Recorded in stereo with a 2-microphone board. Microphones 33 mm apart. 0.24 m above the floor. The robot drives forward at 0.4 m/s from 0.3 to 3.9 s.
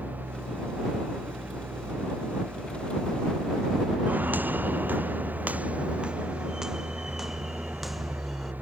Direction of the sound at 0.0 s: 70° right (ahead or behind).